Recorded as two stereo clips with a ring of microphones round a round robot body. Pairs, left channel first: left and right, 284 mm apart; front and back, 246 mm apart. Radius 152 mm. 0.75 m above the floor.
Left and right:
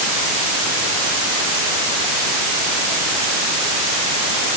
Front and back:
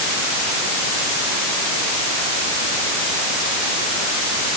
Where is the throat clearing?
No throat clearing in this recording.